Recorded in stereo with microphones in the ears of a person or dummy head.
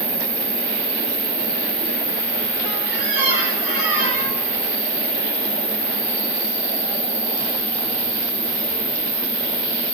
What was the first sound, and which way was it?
An insect, 10° right (ahead or behind).